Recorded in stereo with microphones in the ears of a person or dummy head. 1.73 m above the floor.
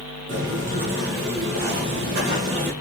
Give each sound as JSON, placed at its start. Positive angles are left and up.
{"t": 0.3, "sound": "footsteps", "side_deg": -45, "distance_m": 2.5}